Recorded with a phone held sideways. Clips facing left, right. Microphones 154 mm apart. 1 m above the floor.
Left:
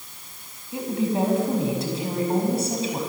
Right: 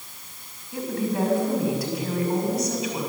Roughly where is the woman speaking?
Left.